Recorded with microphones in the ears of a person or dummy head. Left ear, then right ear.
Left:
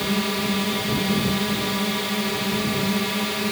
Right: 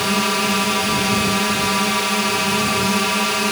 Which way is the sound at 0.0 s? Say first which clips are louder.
Right 6 dB; 35° right (ahead or behind).